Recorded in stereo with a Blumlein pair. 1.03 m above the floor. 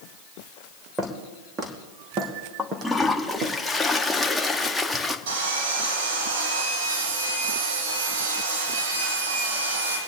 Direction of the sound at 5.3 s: 55° right.